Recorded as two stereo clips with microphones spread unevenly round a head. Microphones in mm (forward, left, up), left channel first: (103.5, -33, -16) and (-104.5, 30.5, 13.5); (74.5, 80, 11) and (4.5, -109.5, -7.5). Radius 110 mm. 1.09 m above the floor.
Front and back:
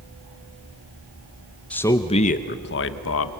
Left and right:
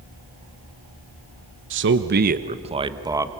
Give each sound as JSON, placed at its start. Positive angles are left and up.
{"t": 1.7, "sound": "a man speaking", "azimuth_deg": -100, "distance_m": 0.9}